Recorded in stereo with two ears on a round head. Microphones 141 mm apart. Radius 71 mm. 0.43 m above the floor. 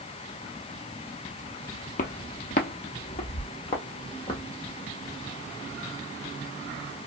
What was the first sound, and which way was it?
Footsteps, 55° left (ahead or behind).